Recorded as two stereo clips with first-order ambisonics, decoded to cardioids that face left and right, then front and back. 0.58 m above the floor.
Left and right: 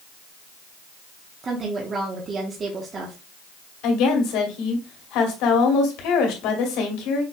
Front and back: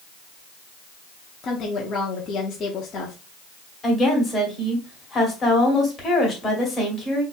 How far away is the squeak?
I don't hear a squeak.